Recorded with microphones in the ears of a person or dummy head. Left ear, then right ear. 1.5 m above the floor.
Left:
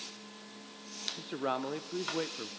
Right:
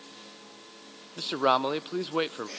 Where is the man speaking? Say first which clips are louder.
Right 12 dB; 45° right (ahead or behind), 0.6 m.